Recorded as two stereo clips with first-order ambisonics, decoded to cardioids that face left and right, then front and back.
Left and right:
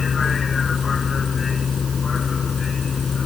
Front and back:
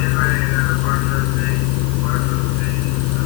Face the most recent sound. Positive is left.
turn(degrees=20)